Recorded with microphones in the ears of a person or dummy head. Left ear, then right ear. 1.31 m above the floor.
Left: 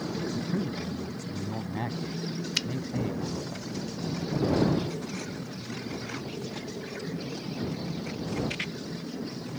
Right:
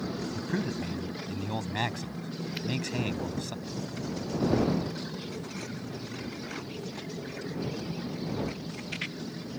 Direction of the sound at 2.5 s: 45° left (ahead or behind).